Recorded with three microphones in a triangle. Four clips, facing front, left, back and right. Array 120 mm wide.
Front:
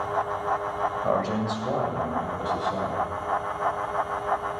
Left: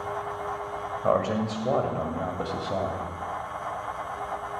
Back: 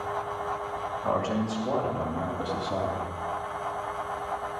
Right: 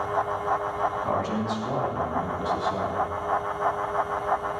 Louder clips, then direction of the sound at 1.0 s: Left 2 dB, even; 65° left.